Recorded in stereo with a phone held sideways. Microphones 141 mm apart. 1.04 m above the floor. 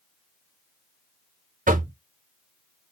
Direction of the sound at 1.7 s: 75° right (ahead or behind).